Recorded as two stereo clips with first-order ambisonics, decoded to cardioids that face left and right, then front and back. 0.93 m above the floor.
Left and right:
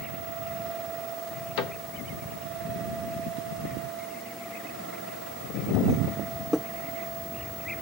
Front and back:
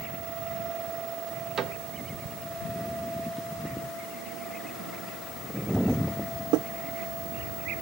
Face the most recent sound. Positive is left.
turn(degrees=110)